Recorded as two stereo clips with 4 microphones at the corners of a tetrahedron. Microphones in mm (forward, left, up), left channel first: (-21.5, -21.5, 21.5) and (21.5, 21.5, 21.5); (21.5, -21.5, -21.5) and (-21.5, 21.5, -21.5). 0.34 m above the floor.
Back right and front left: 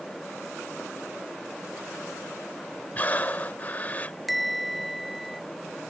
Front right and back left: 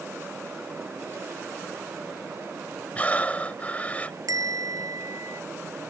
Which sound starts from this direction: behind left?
A bell, at 4.3 s.